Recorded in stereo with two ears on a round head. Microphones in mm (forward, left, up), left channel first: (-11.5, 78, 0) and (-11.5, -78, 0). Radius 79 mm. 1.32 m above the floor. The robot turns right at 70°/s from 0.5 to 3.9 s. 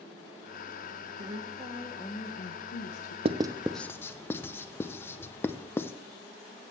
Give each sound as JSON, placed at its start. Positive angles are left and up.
{"t": 1.2, "sound": "a woman speaking", "azimuth_deg": -50, "distance_m": 1.0}
{"t": 3.2, "sound": "writing", "side_deg": -35, "distance_m": 0.5}